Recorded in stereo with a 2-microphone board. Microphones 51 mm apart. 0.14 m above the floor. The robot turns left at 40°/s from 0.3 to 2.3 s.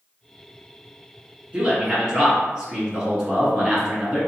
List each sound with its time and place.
1.5 s a man speaking: 25° right (ahead or behind), 1.1 m; by 4.2 s 15° right (ahead or behind), 1.1 m